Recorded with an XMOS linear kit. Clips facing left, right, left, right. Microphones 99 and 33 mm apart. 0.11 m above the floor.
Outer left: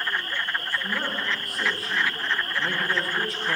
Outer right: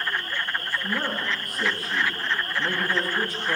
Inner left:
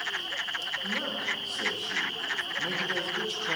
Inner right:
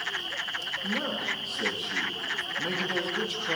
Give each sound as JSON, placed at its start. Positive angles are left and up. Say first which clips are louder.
{"t": 0.8, "sound": "a man speaking", "louder": "outer right 1 dB, inner right 3 dB", "side_deg": 0, "distance_m": 9.5}